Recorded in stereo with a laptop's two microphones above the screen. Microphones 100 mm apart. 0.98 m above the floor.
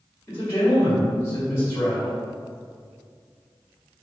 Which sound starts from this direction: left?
A man speaking, at 0.3 s.